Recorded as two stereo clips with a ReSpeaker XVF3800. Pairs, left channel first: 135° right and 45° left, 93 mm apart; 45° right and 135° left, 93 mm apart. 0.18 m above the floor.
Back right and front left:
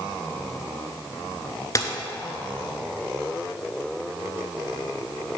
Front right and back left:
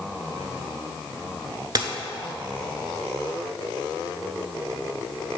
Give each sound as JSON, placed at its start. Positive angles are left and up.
{"t": 1.8, "sound": "a dropped coin", "azimuth_deg": 175, "distance_m": 0.6}